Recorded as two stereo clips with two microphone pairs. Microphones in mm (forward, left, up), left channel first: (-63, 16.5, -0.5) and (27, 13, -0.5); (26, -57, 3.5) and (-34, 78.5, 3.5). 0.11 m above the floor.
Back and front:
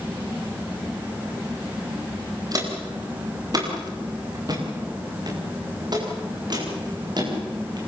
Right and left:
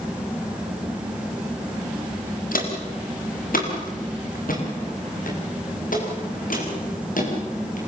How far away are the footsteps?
About 6 m.